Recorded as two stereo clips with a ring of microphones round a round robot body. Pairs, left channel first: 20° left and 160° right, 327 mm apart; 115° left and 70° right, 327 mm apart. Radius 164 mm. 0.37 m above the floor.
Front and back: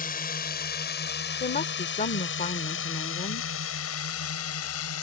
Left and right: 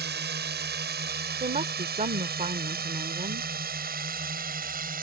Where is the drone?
25° right; by 5.0 s 10° right.